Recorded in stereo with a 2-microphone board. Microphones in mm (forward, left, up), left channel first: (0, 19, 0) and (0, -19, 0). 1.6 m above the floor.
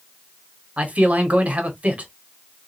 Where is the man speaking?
40° right (ahead or behind), 1.1 m.